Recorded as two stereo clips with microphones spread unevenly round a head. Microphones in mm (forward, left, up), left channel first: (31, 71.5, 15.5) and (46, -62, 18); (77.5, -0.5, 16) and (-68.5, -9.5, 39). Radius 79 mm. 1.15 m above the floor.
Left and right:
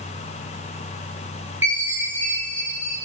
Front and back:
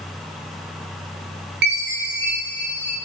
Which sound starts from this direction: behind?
A chime, at 1.6 s.